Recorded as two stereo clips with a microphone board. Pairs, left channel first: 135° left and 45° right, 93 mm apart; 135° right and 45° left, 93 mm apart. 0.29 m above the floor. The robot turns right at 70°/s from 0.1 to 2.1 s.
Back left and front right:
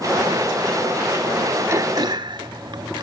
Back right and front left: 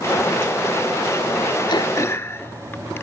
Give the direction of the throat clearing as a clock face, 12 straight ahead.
3 o'clock.